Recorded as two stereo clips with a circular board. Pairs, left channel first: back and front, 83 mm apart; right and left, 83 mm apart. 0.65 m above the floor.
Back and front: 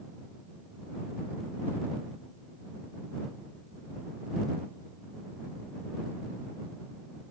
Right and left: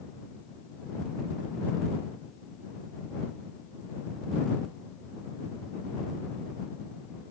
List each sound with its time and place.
Only background noise.